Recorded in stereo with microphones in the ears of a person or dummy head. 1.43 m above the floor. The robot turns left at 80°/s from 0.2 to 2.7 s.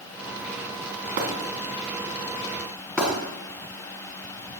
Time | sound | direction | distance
1.2 | breaking glass | 55° right (ahead or behind) | 3 m